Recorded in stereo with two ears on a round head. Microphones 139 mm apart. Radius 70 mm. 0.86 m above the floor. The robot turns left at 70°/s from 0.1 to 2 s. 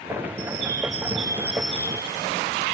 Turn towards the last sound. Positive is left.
turn(degrees=155)